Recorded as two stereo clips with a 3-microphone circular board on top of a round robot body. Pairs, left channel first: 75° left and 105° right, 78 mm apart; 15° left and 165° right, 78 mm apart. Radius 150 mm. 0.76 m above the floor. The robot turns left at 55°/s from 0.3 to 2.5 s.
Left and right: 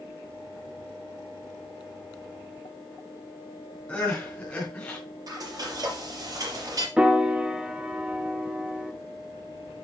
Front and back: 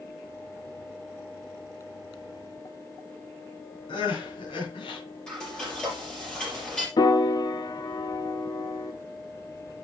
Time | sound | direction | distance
3.9 | crying | straight ahead | 4 m
5.3 | frying | 65° right | 5 m
7.0 | a piano | 25° right | 0.8 m